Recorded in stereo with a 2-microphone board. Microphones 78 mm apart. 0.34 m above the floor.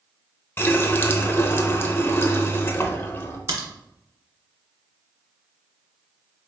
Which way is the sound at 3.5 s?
60° right (ahead or behind).